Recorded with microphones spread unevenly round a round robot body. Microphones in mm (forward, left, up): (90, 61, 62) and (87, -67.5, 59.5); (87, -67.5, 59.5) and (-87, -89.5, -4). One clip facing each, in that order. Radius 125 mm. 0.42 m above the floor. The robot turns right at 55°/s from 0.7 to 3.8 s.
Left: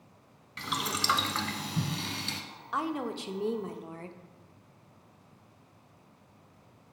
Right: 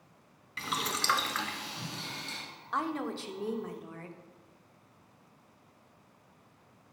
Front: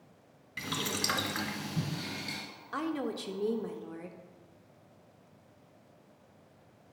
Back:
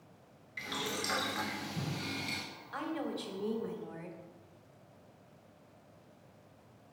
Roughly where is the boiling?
Ahead.